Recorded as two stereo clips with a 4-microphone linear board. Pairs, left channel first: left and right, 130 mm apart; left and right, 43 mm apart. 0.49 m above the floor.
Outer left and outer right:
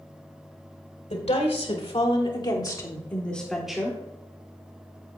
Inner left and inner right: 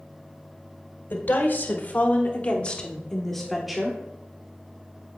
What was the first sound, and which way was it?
A woman speaking, 60° left (ahead or behind).